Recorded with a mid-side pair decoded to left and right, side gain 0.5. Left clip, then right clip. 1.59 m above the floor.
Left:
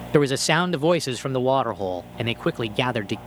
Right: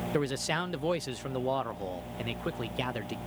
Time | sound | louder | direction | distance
0.1 | a man speaking | left 12 dB | 60° left | ?